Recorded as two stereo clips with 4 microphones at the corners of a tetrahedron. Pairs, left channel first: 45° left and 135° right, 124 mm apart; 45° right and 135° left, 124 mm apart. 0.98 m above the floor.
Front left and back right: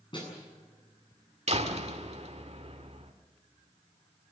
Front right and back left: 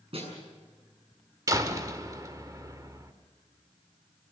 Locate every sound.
0.1 s a snare drum: 95° left, 7.5 m
1.5 s a door slam: 165° right, 1.6 m